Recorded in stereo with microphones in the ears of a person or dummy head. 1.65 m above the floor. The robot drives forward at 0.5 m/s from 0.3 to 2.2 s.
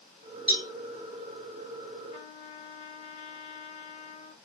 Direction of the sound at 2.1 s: 35° left (ahead or behind).